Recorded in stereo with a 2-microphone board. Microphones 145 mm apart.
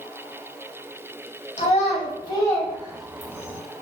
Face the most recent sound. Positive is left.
turn(degrees=-20)  # may be behind; listen again after turning